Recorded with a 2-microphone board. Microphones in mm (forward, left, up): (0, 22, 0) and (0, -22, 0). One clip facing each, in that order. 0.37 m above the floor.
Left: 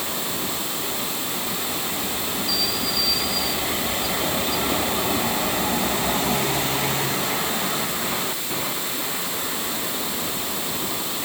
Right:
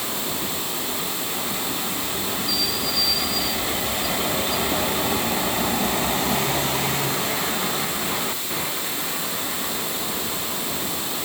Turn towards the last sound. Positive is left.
No sound to turn to.